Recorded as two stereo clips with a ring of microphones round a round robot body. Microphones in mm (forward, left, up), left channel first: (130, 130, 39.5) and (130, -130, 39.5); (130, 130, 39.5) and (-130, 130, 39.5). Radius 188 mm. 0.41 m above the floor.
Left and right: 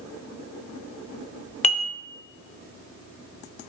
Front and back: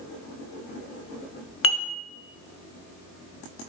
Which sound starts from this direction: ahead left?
Dishes clattering, at 1.6 s.